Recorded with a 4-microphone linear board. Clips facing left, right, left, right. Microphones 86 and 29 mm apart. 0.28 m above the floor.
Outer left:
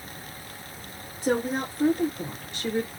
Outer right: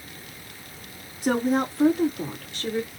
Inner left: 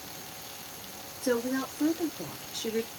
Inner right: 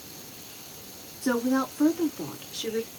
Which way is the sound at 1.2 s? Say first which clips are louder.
Outer right 3 dB, inner right 4 dB; 65° right (ahead or behind).